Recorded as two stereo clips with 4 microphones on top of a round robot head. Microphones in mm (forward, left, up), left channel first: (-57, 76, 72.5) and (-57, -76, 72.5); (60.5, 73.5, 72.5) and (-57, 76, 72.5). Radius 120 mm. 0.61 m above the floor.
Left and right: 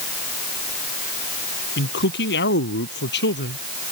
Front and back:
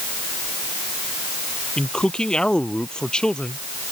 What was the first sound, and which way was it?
A man speaking, 80° left.